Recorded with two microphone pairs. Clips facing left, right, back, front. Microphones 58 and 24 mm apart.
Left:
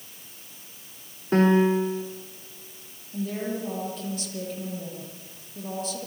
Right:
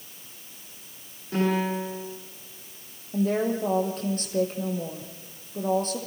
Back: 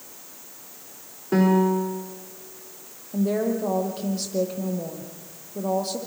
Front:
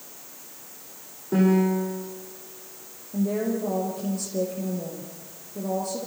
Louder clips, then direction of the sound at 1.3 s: Left 6 dB, back 1 dB; 135° left.